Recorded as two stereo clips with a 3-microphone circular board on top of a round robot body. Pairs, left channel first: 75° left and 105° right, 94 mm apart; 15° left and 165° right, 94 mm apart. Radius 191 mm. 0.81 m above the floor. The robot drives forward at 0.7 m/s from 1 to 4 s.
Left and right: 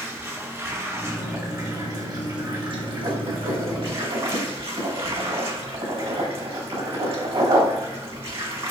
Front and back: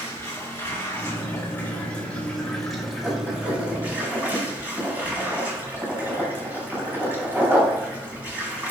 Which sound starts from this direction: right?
Writing, at 3.0 s.